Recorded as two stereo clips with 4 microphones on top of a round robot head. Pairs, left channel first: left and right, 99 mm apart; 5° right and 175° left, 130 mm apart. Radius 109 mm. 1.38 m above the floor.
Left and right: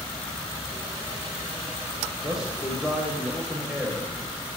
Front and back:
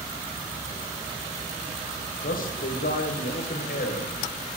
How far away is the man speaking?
About 1.7 m.